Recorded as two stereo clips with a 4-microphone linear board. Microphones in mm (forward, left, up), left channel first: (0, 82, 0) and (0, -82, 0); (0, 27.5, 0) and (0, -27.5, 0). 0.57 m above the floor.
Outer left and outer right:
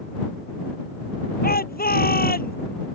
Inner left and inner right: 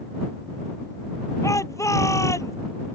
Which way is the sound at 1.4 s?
70° left (ahead or behind).